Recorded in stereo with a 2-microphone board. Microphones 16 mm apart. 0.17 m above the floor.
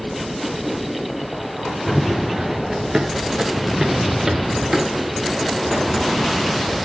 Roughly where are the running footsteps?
Right.